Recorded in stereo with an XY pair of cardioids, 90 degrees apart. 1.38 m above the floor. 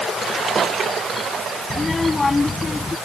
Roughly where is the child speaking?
Ahead left.